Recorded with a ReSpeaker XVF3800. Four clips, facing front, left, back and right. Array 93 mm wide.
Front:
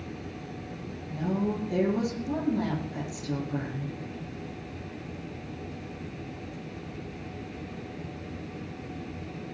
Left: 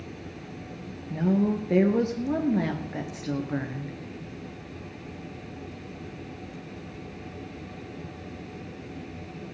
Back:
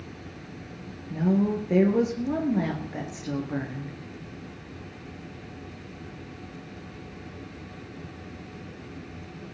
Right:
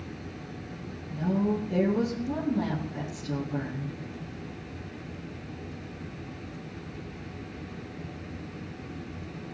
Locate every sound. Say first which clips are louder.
1.1 s a woman speaking: left 3 dB, back 5 dB; 120° left, 3.5 m